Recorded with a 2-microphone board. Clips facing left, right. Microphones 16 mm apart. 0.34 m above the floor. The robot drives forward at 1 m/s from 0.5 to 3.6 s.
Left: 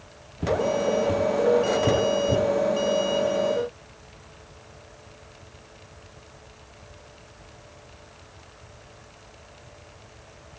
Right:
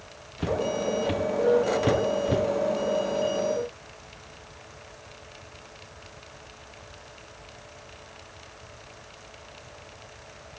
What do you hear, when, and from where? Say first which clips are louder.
0.4 s footsteps: left 4 dB; 50° right (ahead or behind), 3.5 m